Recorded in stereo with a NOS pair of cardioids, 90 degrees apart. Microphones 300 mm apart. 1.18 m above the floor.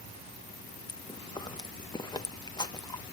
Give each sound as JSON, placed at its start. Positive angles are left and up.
{"t": 0.9, "sound": "chewing", "azimuth_deg": 15, "distance_m": 0.9}